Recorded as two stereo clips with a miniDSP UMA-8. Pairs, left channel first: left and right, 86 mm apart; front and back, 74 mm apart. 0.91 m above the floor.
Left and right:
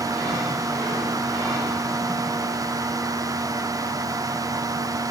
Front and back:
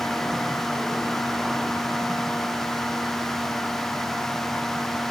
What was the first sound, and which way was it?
Only background noise.